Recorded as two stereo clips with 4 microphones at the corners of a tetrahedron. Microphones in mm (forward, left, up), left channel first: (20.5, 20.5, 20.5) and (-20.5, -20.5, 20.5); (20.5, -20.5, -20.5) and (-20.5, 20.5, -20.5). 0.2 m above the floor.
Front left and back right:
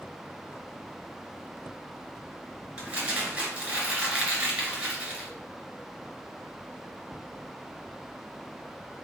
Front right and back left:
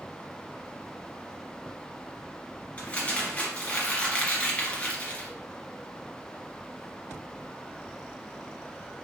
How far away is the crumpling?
About 1.7 m.